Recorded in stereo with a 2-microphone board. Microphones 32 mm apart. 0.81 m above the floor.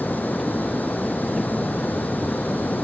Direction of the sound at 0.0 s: 75° left (ahead or behind).